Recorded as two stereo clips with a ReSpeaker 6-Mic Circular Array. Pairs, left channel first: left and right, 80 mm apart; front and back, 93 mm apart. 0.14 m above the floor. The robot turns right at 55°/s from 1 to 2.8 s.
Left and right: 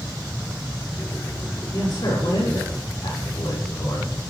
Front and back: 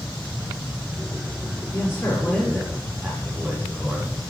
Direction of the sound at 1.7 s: 50° left.